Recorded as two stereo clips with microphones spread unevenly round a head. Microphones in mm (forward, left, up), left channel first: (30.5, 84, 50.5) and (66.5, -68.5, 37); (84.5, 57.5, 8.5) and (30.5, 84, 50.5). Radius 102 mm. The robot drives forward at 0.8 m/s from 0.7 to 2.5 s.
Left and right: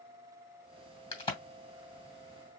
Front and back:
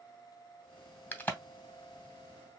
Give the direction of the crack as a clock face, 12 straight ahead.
11 o'clock.